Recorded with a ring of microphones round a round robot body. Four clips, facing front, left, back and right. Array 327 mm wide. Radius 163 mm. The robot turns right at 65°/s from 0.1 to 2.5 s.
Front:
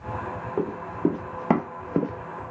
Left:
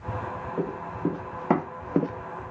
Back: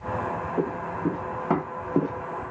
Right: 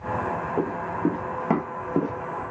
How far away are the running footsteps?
About 1.4 m.